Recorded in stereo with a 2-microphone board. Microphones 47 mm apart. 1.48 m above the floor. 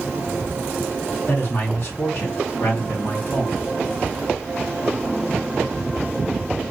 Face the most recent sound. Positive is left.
turn(degrees=55)  # may be behind; listen again after turning